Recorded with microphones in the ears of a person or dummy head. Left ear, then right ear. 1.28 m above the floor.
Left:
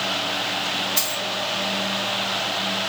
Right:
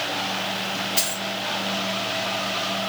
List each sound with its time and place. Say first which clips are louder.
1.0 s a dropped coin: left 1 dB; 15° left (ahead or behind), 0.5 m